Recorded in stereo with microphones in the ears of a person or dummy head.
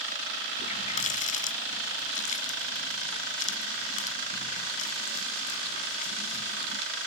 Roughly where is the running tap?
Left.